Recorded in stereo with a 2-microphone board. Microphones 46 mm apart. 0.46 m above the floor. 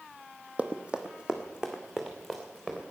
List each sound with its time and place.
0.6 s running footsteps: 25° right (ahead or behind), 1.2 m; by 2.8 s 5° right (ahead or behind), 3.5 m